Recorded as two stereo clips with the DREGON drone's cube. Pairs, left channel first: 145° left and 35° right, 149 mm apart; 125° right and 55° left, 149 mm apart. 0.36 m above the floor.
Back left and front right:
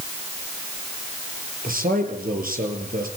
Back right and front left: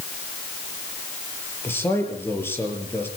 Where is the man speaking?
50° right, 6 m.